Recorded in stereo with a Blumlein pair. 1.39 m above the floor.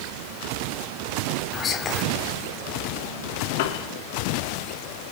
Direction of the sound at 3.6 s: 50° left.